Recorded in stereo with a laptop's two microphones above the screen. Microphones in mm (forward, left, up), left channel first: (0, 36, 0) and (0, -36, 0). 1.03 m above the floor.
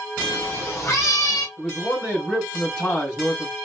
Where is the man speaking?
15° left (ahead or behind), 2.5 m.